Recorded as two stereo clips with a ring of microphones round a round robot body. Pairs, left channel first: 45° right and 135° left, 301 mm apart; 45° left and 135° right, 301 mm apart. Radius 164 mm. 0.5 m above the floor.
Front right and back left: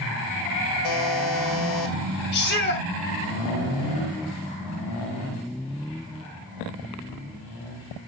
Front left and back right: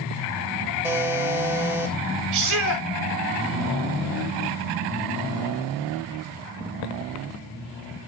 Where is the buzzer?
55° right, 3 m.